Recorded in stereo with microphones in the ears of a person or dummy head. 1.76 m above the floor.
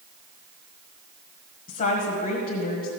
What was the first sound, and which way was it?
A woman speaking, 45° left (ahead or behind).